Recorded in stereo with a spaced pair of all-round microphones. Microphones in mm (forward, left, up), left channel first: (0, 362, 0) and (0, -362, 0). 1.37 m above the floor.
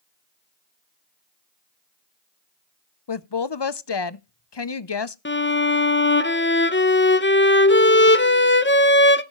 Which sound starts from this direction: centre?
A violin, at 5.2 s.